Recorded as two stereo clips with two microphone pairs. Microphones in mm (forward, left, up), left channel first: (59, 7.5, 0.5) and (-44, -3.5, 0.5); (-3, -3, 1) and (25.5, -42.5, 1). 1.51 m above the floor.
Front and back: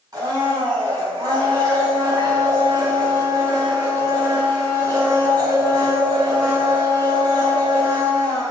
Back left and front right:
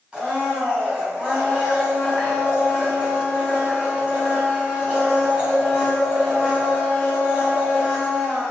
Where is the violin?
I don't hear a violin.